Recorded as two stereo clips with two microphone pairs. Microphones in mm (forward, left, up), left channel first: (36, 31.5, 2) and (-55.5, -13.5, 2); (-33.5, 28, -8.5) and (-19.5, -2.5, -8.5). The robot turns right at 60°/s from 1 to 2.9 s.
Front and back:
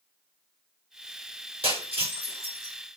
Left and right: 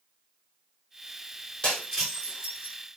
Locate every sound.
1.6 s breaking glass: straight behind, 4.5 m; by 2.8 s 115° right, 4.5 m